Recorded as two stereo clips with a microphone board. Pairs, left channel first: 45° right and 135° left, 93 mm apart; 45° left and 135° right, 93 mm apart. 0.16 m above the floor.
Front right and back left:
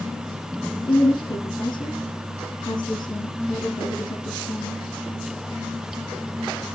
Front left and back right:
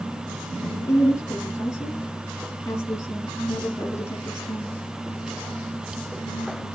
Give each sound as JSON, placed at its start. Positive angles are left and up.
{"t": 0.9, "sound": "a woman speaking", "azimuth_deg": -10, "distance_m": 3.5}